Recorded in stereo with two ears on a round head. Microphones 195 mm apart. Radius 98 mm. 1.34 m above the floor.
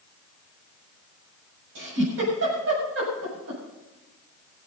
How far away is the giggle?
About 7.5 m.